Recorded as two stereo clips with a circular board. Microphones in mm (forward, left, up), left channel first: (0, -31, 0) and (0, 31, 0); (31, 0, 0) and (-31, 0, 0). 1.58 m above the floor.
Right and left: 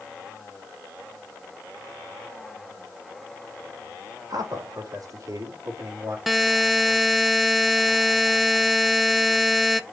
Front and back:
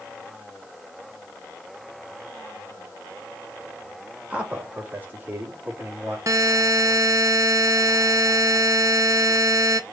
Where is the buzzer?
Straight behind, 0.8 m.